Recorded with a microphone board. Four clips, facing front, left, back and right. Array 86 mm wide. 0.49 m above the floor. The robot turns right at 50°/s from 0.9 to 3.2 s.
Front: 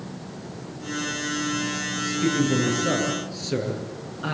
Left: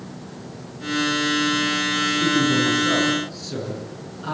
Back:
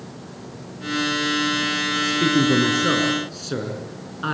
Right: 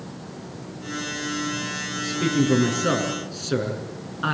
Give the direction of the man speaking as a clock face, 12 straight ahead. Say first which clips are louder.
Even, back 3 dB; 6 o'clock.